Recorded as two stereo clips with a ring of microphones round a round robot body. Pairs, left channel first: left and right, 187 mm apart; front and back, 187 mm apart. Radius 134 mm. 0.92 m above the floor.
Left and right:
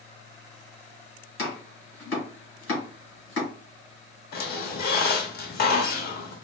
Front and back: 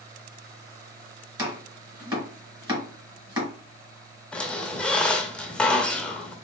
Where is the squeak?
85° left, 0.8 m.